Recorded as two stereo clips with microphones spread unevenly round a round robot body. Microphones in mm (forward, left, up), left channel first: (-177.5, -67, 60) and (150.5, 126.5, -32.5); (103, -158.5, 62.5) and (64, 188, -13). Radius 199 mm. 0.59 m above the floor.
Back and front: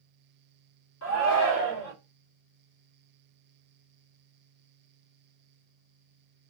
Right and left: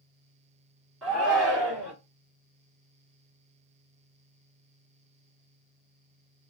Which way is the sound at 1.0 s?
170° left.